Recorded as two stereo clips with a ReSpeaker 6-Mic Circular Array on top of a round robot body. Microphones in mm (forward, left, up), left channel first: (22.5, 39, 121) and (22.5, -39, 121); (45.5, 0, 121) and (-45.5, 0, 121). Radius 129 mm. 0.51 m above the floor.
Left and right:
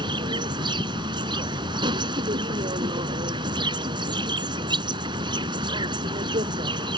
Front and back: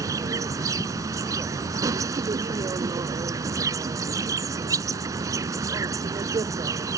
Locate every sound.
0.0 s an insect: 125° right